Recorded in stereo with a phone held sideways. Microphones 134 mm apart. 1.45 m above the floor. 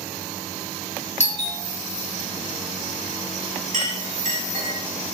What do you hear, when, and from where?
1.2 s a doorbell: 55° left (ahead or behind), 1.3 m
3.7 s a clink: 75° right (ahead or behind), 1.9 m